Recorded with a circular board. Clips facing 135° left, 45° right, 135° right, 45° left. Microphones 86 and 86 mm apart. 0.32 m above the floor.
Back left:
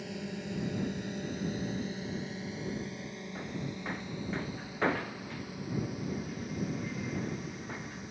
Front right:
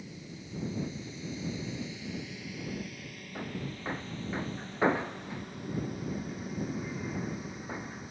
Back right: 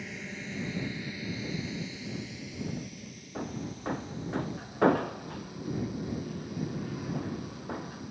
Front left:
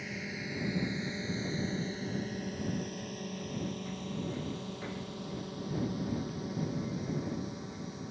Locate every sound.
0.0 s a drone: 130° left; by 8.1 s 40° left
3.4 s hammering: 120° right